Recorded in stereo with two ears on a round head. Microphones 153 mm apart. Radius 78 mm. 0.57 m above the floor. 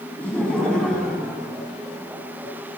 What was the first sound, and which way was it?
Laughter, 5° left (ahead or behind).